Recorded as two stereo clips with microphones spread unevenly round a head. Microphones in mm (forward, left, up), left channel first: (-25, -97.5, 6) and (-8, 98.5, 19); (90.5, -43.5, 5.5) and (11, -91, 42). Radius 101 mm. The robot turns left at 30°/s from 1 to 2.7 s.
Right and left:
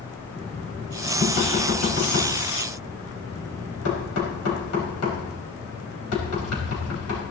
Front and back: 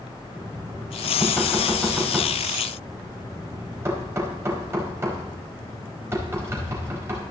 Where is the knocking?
40° right, 4.5 m; by 7.2 s 90° right, 4.5 m.